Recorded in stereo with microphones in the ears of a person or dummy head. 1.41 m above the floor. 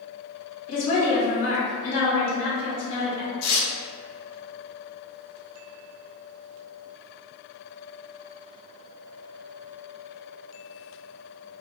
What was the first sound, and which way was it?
A woman speaking, 35° left (ahead or behind).